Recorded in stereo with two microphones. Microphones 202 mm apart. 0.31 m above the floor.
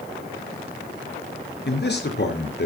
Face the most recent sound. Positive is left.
turn(degrees=60)  # may be behind; listen again after turning